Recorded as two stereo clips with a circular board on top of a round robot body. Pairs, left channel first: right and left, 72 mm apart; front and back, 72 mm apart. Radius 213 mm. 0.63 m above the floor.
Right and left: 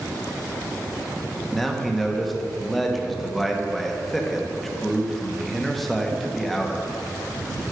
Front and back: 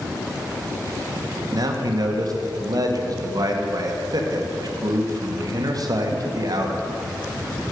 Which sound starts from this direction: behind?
A man speaking, at 1.5 s.